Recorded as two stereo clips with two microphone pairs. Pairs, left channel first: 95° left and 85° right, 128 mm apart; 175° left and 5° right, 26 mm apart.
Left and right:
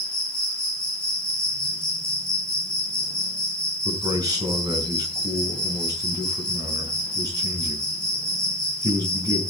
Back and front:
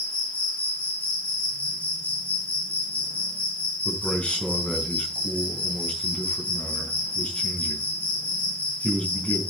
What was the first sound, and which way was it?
An insect, 175° left.